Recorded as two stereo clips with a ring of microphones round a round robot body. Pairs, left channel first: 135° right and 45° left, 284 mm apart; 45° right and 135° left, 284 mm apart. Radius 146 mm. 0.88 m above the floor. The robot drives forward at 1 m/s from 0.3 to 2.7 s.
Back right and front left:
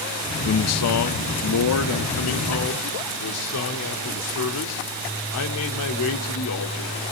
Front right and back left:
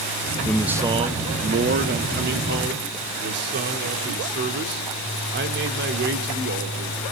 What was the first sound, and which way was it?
A man speaking, 120° right.